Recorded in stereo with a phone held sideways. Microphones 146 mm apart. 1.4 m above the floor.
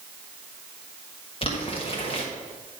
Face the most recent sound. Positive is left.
turn(degrees=40)  # may be behind; listen again after turning